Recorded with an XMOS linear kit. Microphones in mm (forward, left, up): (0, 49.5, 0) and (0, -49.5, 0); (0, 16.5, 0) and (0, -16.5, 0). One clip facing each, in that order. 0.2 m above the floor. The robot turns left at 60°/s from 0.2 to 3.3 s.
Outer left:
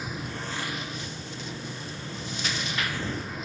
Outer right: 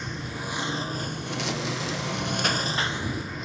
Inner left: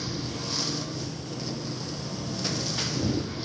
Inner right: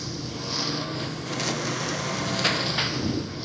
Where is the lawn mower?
5° left; by 3.5 s straight behind.